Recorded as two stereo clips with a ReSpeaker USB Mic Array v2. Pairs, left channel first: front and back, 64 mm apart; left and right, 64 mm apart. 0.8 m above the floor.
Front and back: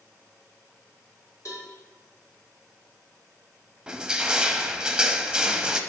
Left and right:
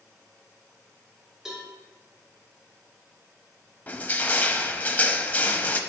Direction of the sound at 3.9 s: 115° left.